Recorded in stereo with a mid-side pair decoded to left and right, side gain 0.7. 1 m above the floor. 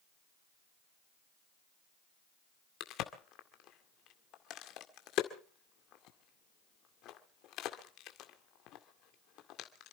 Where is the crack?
55° left, 2 m.